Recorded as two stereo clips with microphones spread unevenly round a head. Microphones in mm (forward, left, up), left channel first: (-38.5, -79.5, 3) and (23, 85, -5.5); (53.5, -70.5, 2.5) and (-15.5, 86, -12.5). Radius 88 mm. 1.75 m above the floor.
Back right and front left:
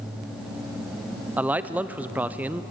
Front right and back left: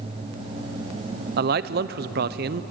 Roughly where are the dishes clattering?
No dishes clattering in this recording.